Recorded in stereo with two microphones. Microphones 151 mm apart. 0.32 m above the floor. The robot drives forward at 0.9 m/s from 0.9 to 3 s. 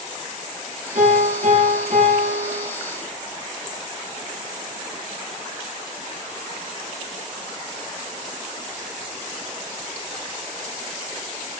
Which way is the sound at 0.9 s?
80° right.